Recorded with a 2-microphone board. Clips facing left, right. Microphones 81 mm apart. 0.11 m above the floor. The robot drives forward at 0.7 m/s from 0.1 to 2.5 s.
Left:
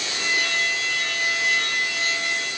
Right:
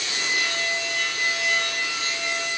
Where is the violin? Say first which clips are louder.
Left 2 dB; 15° right (ahead or behind), 1.8 m; by 2.5 s 10° right (ahead or behind), 3.5 m.